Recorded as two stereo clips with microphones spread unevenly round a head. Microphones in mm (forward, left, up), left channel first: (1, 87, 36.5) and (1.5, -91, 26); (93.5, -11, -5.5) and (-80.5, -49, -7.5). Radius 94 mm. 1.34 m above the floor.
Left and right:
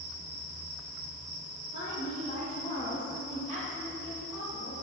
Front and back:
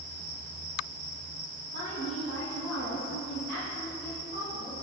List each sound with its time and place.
1.7 s a woman speaking: 60° left, 1.0 m; by 4.8 s 40° right, 1.2 m